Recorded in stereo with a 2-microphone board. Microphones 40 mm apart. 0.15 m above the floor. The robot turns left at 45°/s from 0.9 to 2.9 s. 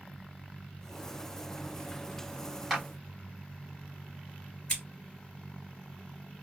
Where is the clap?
10° right (ahead or behind), 2.0 m; by 2.9 s 5° right (ahead or behind), 2.0 m.